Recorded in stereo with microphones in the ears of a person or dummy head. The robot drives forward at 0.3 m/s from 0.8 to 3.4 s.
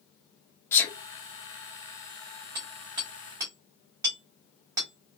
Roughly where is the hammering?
Right.